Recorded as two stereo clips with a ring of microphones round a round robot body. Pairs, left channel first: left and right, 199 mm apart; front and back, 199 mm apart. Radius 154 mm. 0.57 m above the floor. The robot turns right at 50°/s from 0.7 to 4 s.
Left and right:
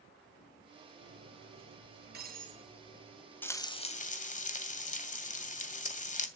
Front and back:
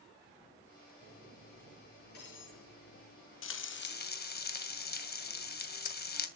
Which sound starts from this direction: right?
Cutlery clinking, at 1.0 s.